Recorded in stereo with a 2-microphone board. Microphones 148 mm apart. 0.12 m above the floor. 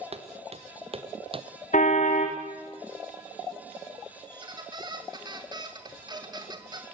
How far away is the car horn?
About 3 m.